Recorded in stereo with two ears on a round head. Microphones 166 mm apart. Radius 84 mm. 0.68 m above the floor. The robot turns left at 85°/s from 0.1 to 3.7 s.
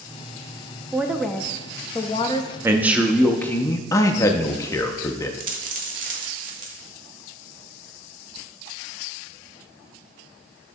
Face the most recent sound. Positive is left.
turn(degrees=-45)  # may be behind; listen again after turning